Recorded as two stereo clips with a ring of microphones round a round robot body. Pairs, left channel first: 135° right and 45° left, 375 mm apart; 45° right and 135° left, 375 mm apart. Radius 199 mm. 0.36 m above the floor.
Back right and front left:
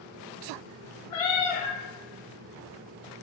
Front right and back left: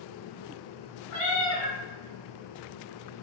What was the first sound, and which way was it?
A cat meowing, 95° right.